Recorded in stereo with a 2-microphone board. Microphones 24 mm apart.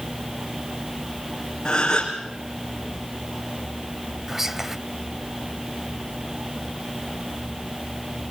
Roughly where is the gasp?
Left.